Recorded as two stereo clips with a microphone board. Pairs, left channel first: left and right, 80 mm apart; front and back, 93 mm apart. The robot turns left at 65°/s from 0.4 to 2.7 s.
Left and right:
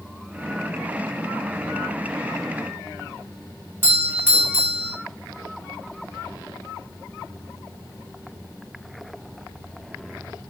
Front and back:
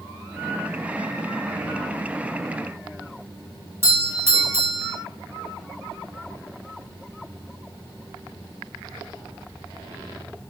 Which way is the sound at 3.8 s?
140° right.